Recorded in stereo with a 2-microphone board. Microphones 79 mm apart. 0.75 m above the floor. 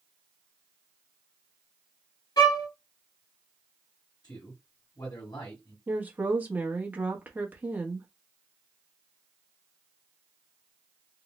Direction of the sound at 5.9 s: 20° right (ahead or behind).